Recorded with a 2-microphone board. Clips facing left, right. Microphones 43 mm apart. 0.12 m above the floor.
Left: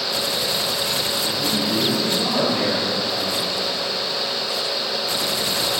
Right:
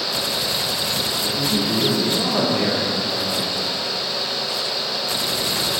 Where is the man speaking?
25° right (ahead or behind), 3.5 m.